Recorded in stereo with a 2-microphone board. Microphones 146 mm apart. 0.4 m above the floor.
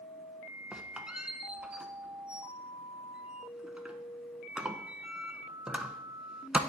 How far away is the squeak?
About 0.5 m.